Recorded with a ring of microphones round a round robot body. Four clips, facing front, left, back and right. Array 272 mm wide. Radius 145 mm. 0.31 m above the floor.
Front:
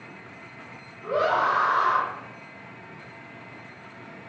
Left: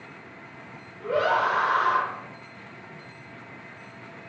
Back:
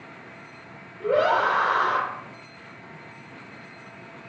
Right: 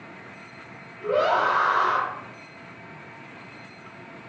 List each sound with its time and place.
1.0 s a scream: 165° right, 8.5 m